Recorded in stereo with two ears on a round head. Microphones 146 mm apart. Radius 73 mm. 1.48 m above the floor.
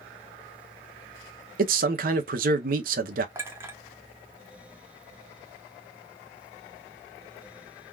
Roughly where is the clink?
Centre.